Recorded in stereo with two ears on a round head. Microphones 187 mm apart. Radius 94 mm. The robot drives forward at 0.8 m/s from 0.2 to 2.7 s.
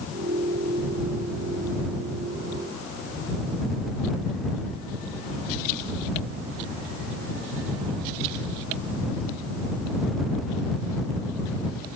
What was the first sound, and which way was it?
Only background noise.